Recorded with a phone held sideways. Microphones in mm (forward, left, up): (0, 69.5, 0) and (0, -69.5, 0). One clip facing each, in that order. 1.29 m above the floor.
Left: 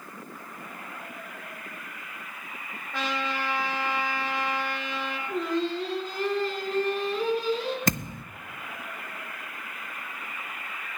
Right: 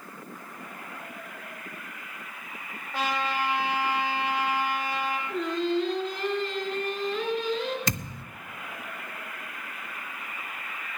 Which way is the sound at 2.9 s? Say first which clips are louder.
Right 2 dB; 65° left (ahead or behind).